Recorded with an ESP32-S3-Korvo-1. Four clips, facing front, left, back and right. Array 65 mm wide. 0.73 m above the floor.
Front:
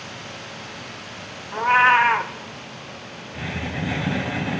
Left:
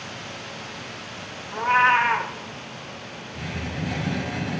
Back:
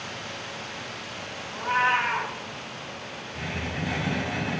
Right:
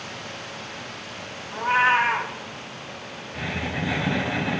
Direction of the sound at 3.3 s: 65° right.